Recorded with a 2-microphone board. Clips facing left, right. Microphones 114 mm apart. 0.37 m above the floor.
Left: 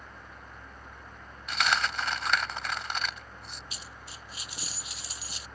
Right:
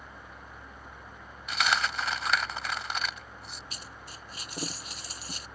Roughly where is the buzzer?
I don't hear a buzzer.